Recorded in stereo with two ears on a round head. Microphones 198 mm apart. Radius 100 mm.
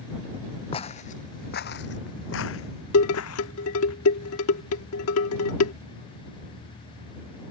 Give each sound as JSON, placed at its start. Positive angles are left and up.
{"t": 0.7, "sound": "footsteps", "side_deg": 25}
{"t": 2.9, "sound": "dishes clattering", "side_deg": 70}